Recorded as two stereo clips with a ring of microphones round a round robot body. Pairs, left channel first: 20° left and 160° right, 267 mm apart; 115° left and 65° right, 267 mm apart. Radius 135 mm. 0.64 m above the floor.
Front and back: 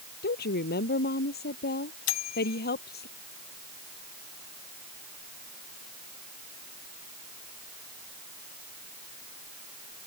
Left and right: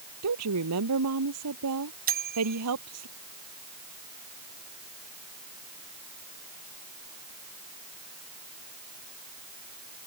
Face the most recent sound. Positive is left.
turn(degrees=-10)